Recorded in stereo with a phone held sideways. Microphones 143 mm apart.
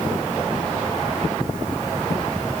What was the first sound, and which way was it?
Only background noise.